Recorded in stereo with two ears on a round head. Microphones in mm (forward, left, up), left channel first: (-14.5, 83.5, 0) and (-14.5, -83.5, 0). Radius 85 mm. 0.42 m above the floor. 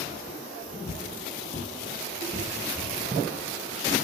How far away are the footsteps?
About 0.8 m.